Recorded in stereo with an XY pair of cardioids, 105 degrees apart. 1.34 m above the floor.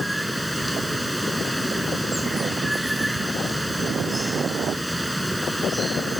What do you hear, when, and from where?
0.0 s running water: 5° right